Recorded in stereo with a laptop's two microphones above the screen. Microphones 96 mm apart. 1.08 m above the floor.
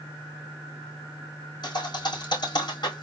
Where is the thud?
50° left (ahead or behind), 3 m.